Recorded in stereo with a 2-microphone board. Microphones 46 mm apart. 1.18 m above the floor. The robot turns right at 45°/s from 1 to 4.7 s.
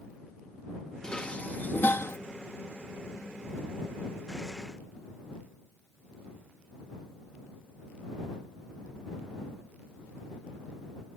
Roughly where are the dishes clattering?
Ahead.